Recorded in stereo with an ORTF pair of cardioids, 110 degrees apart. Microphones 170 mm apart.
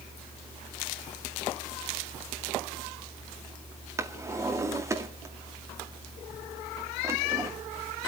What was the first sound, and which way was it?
A drawer, 20° right.